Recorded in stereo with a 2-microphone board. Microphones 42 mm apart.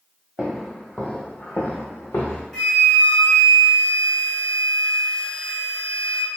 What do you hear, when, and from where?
0.4 s footsteps: 5° left (ahead or behind), 0.9 m; by 2.4 s 70° left (ahead or behind), 0.9 m
2.5 s a flute: 10° left (ahead or behind), 1.7 m